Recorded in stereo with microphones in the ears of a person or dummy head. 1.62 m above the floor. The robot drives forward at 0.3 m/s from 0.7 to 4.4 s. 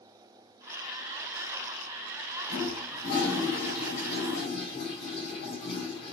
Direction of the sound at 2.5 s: 60° left (ahead or behind).